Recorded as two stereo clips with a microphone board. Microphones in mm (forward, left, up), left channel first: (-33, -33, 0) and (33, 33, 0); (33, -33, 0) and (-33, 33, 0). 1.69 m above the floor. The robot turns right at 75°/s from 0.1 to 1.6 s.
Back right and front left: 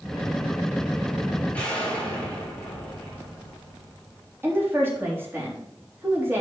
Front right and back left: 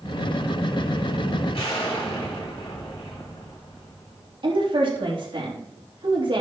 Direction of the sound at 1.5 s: 60° right.